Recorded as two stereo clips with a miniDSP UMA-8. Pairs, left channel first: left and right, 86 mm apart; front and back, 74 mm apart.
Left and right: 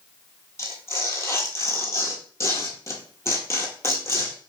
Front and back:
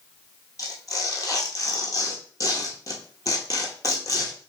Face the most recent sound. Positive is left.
turn(degrees=35)